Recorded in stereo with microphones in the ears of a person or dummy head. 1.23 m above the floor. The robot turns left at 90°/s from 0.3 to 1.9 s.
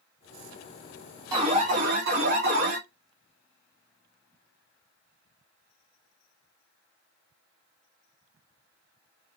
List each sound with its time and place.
1.3 s an alarm: 25° right, 0.8 m; by 2.8 s 80° right, 0.8 m